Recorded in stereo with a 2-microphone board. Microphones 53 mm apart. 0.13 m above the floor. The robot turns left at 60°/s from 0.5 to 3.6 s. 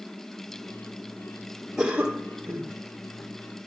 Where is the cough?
5° right, 3.5 m; by 2.7 s 65° right, 3.5 m.